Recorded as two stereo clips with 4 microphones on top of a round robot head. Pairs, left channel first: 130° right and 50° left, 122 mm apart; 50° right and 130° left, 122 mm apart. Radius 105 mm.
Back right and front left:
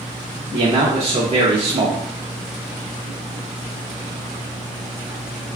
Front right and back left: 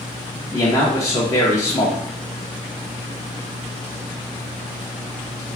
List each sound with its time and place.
0.5 s a man speaking: 15° left, 0.7 m